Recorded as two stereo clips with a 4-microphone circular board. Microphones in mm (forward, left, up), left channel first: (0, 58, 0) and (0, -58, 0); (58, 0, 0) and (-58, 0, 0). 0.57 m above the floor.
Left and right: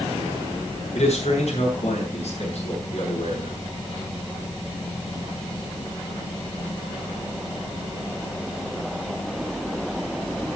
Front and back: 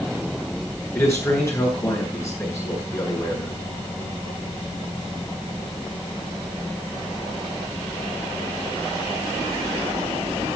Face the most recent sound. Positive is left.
turn(degrees=65)